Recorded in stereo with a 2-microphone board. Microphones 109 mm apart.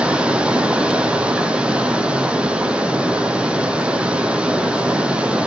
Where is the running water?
10° right (ahead or behind), 1.2 m.